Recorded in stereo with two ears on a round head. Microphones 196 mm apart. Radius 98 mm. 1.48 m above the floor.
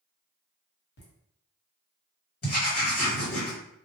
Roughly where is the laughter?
Left.